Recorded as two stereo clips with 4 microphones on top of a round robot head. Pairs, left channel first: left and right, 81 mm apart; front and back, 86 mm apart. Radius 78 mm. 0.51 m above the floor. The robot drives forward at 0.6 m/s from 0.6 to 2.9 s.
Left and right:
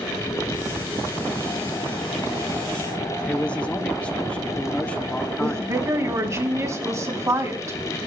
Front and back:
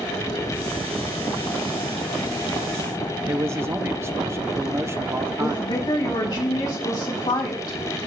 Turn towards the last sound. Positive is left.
turn(degrees=-40)